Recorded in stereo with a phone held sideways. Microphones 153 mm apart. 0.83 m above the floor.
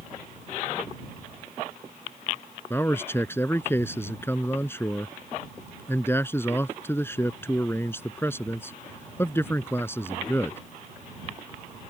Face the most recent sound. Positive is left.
turn(degrees=15)  # may be behind; listen again after turning